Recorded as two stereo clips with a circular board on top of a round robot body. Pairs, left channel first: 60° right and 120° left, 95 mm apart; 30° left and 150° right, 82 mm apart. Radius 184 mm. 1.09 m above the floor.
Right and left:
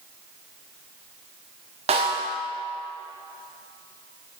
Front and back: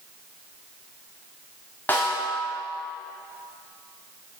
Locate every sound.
1.9 s a snare drum: 100° left, 1.4 m